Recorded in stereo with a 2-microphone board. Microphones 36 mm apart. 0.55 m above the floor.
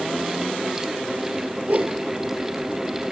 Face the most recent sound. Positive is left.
turn(degrees=-55)  # may be behind; listen again after turning